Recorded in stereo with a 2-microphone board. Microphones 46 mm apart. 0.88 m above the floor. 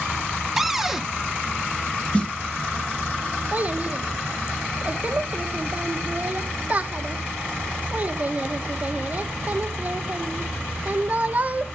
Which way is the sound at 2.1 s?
25° left (ahead or behind).